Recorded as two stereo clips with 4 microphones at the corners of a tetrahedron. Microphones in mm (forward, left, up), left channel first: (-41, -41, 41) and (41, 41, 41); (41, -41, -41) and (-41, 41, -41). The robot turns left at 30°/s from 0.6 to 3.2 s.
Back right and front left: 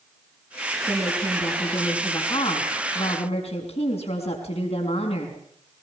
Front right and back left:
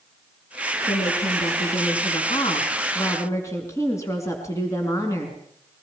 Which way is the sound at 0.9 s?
40° right.